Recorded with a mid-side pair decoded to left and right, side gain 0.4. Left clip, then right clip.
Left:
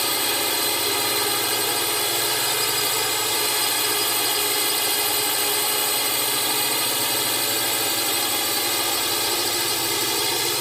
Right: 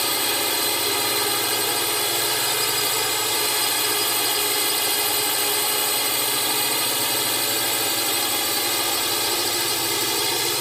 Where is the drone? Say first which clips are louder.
Even; 5° right.